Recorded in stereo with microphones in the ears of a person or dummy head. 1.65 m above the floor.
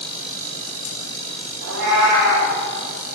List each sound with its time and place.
1.6 s a cat meowing: 70° right (ahead or behind), 3 m